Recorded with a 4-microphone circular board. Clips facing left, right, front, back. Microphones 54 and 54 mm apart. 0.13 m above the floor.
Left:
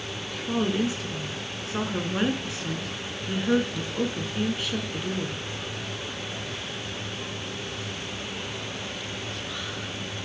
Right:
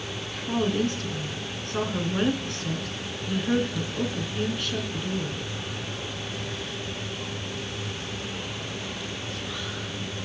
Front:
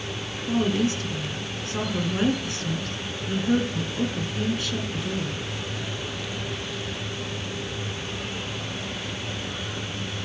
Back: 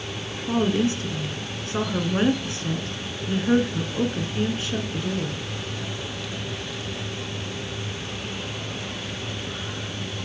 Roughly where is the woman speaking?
Behind.